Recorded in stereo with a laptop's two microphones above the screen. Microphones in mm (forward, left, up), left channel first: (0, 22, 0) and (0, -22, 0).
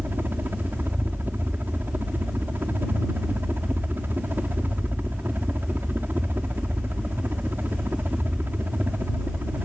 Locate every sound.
0.0 s a helicopter: 55° right (ahead or behind)